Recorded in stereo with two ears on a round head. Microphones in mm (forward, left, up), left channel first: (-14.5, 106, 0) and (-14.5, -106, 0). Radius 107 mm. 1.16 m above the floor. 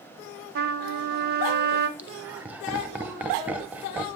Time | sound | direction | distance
0.6 | a trumpet | 45° right (ahead or behind) | 1.2 m
2.0 | laughter | 5° right (ahead or behind) | 0.9 m